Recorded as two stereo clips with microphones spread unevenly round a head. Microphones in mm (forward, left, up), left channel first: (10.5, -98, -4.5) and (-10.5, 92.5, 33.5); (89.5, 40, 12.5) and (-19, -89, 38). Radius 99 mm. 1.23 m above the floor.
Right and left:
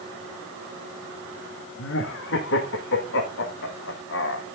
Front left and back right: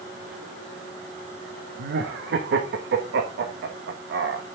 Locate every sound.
1.8 s laughter: 110° right, 1.5 m